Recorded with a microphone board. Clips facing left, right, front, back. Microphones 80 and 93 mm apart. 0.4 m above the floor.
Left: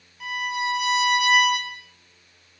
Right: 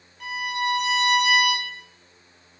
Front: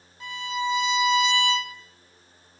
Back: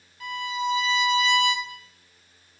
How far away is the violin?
About 0.6 m.